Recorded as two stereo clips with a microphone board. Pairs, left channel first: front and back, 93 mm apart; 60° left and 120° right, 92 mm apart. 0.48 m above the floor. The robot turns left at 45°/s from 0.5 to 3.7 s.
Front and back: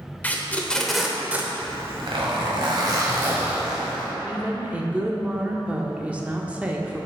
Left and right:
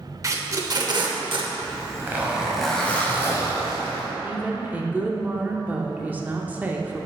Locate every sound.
0.2 s tape being pulled: 70° right, 0.7 m; by 1.5 s 115° right, 0.7 m
1.6 s a zipper: 165° right, 1.4 m; by 4.1 s 100° left, 1.4 m
4.2 s a woman speaking: 140° right, 0.7 m